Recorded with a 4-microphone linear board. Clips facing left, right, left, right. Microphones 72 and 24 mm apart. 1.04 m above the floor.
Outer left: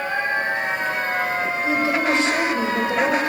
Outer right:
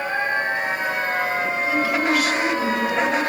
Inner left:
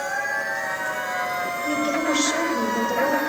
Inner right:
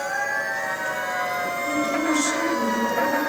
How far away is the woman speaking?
About 3.5 m.